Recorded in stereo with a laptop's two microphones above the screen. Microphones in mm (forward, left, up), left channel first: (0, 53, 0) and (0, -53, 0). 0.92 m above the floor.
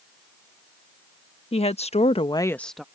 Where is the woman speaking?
65° left (ahead or behind); by 2.9 s 5° right (ahead or behind).